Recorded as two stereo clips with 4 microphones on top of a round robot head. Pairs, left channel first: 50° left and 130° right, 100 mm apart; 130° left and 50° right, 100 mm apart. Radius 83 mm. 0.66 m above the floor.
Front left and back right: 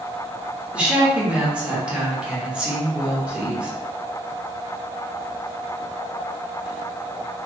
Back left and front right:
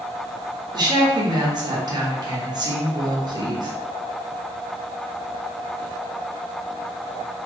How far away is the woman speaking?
About 1.2 m.